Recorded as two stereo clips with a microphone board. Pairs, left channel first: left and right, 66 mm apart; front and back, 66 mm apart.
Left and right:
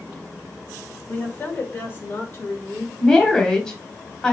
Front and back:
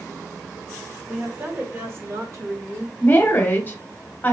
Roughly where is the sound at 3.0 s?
Ahead.